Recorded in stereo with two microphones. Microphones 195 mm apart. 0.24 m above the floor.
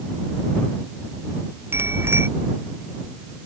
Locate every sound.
1.7 s a bicycle bell: 10° right (ahead or behind)